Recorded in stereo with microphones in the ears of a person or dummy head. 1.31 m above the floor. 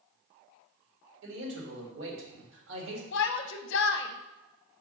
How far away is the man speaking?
About 2 m.